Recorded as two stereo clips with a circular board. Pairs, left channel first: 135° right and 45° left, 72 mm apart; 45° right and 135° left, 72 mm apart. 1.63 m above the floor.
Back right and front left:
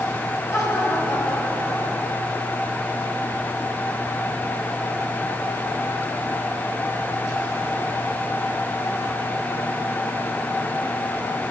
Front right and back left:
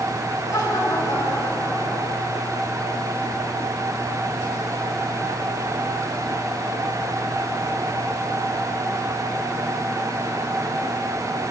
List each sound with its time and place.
0.5 s laughter: 90° right, 6 m